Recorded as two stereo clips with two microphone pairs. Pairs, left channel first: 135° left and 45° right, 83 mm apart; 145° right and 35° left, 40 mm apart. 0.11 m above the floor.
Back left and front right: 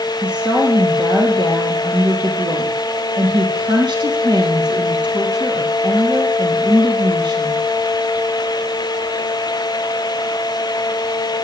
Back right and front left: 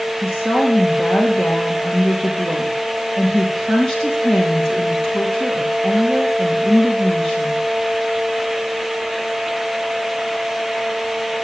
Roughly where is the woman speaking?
Ahead right.